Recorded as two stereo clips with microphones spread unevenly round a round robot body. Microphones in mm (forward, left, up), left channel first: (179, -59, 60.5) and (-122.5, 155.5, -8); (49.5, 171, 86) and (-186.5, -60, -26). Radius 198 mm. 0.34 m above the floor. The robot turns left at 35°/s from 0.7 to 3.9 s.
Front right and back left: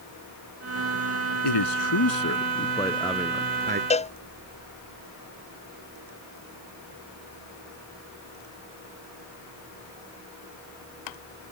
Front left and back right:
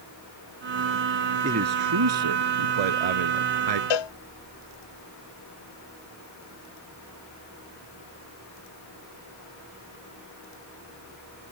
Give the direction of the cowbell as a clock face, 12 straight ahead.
11 o'clock.